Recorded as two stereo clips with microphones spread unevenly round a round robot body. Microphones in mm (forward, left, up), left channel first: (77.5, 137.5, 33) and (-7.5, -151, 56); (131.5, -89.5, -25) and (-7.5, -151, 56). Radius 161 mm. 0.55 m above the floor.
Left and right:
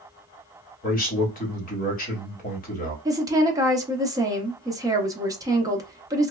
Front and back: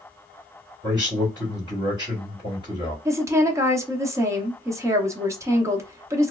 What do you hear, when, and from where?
0.8 s a man speaking: 110° left, 1.4 m
3.0 s a woman speaking: 35° right, 0.6 m